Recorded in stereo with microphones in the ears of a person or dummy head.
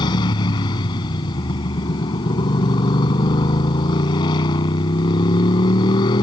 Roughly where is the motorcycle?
Left.